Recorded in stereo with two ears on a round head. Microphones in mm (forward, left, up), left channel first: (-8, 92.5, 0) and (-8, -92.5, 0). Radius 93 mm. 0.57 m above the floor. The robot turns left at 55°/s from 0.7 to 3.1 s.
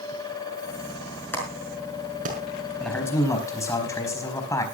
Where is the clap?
10° left (ahead or behind), 5.5 m; by 2.4 s 45° right (ahead or behind), 5.5 m.